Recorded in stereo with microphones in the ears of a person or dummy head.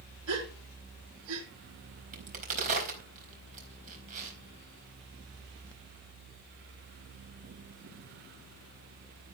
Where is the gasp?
75° right (ahead or behind), 3.5 m.